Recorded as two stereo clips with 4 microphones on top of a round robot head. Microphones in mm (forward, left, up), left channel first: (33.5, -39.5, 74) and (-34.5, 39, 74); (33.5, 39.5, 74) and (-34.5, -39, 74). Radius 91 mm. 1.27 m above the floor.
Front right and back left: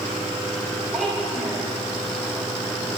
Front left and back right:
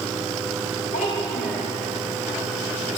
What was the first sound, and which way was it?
A child speaking, 45° left.